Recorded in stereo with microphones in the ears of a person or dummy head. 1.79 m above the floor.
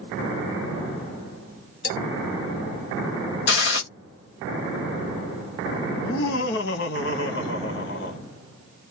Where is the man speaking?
65° left (ahead or behind), 1.9 m.